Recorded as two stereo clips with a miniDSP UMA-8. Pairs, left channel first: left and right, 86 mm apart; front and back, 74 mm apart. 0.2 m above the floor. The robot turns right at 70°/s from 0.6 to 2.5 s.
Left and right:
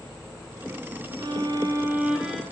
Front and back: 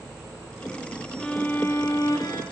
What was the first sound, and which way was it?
A violin, 80° right.